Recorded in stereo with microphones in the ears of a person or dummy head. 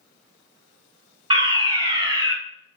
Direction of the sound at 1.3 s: 25° right (ahead or behind).